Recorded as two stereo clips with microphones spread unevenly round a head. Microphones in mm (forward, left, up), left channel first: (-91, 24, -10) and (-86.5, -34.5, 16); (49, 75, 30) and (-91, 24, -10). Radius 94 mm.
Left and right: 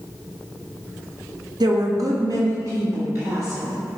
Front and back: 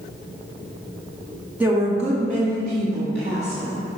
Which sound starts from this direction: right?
A woman speaking, at 1.6 s.